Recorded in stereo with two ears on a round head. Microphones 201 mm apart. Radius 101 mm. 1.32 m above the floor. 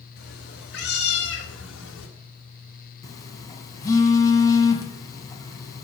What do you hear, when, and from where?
0.2 s a cat meowing: 45° left (ahead or behind), 4.5 m; by 2.1 s 60° left (ahead or behind), 3.5 m
3.0 s a phone buzzing: 15° left (ahead or behind), 2 m